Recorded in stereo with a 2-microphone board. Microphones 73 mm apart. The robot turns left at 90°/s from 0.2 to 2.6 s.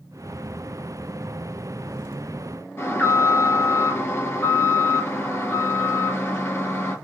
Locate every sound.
2.8 s an alarm: 30° left (ahead or behind), 2.5 m